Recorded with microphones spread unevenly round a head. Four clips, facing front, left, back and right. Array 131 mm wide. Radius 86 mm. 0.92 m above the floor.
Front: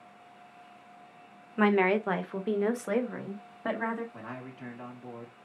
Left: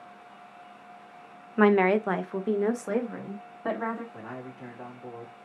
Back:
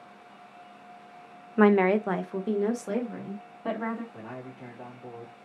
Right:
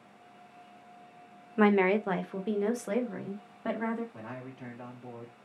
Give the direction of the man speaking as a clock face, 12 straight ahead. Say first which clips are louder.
Left 3 dB, back 1 dB; 11 o'clock.